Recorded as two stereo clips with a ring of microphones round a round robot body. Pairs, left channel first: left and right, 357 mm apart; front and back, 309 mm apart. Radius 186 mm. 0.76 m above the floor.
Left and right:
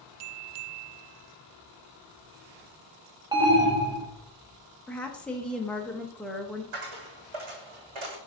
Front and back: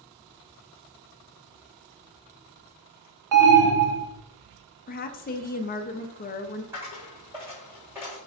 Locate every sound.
3.3 s an alarm: 165° right, 1.5 m
4.9 s a woman speaking: 5° left, 0.8 m
6.7 s a dropped coin: 95° right, 2.5 m